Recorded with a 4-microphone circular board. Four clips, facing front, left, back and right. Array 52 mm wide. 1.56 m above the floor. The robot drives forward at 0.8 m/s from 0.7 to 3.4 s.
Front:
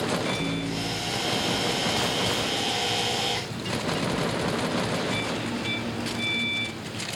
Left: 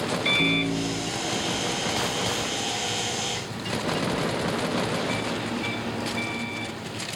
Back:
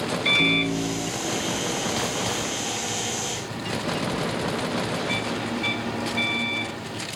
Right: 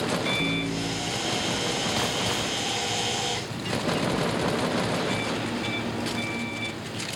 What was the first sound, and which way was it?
A microwave, 140° left.